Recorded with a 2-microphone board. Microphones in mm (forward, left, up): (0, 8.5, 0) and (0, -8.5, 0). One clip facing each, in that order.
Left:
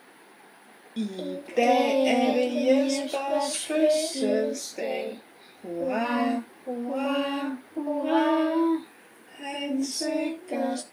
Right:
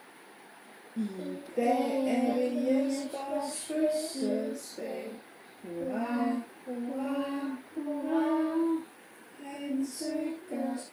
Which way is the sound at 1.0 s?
75° left (ahead or behind).